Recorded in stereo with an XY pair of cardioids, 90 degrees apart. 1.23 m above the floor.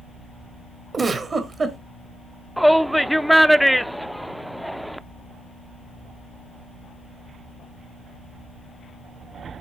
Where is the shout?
5° right, 0.6 m.